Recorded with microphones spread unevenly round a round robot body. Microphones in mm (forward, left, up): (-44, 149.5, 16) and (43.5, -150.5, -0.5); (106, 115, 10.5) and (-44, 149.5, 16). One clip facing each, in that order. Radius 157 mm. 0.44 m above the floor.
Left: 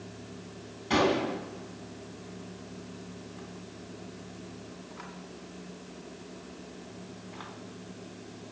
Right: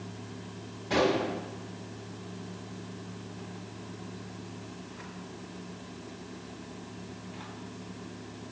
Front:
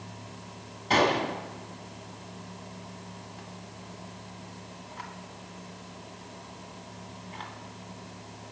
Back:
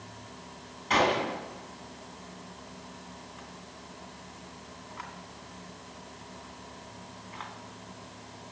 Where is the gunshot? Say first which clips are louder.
Even, front 2 dB; 45° left, 2.0 m.